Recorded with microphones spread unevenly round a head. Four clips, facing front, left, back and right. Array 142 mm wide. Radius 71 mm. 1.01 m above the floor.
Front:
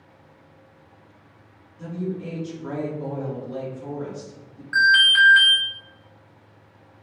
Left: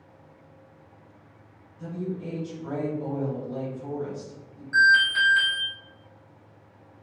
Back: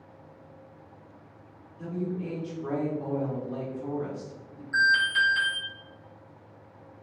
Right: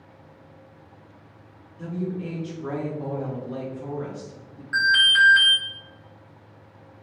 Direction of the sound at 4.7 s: 30° right.